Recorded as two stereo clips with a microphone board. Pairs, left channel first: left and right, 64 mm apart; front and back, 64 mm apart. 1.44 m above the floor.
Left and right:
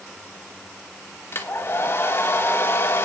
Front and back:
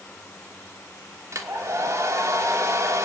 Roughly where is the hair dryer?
Behind left.